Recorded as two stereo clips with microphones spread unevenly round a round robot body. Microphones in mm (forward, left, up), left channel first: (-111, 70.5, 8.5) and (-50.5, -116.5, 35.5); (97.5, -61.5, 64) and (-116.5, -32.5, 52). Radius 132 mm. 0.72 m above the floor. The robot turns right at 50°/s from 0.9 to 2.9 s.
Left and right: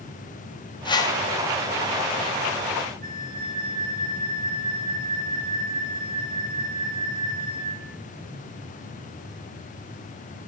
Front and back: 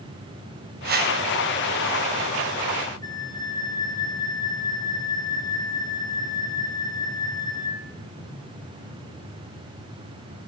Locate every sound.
0.8 s a whoosh: 160° left, 1.6 m; by 1.2 s 175° left, 1.6 m
3.0 s a flute: 70° right, 1.0 m